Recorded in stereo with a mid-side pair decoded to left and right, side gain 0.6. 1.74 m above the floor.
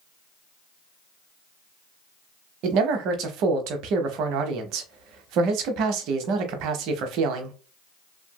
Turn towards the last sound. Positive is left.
turn(degrees=-65)